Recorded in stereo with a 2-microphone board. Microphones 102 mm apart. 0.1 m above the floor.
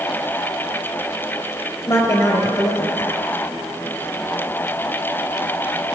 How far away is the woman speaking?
About 1.9 m.